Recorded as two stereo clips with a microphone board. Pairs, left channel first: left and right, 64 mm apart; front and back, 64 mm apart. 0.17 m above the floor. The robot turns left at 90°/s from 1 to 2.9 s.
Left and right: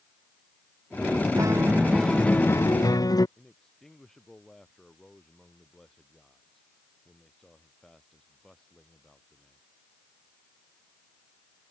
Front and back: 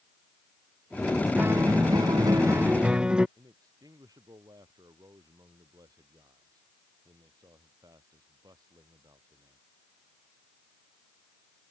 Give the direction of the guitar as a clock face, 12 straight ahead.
4 o'clock.